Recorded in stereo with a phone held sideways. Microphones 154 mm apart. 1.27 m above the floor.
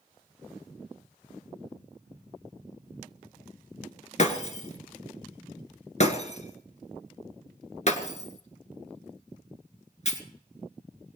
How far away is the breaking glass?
About 1.8 m.